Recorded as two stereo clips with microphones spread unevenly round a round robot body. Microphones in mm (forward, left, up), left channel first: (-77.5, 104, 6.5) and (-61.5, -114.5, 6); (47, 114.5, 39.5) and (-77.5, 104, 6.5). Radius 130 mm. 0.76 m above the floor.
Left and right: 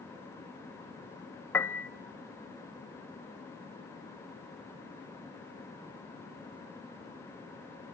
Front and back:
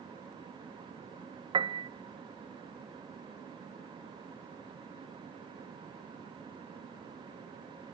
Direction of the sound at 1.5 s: 175° left.